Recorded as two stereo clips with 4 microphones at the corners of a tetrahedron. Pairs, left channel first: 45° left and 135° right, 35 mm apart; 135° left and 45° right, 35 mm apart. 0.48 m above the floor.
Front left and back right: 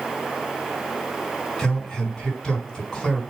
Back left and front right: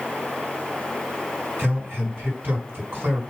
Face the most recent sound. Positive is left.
turn(degrees=-25)